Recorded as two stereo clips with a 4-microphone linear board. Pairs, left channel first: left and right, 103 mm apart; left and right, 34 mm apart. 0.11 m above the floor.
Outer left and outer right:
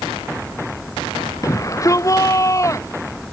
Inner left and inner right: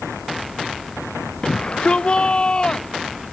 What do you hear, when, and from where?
1.4 s a shout: 35° left (ahead or behind); by 3.0 s 30° left (ahead or behind)